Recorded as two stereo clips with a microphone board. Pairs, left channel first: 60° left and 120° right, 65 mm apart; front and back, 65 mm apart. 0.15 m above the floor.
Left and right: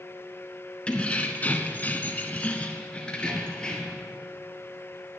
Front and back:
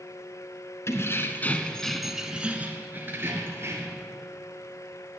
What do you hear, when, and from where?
0.9 s keys jangling: 5° right, 1.5 m; by 4.0 s 135° left, 3 m